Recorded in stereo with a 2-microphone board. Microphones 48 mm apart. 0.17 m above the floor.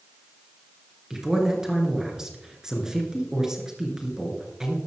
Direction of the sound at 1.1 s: 10° right (ahead or behind).